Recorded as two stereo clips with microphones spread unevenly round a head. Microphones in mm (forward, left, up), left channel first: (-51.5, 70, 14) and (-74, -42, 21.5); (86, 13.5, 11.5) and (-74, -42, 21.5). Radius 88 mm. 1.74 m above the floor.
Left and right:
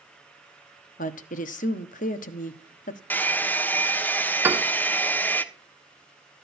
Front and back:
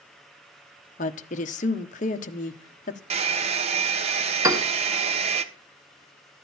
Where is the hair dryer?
155° left, 1.2 m.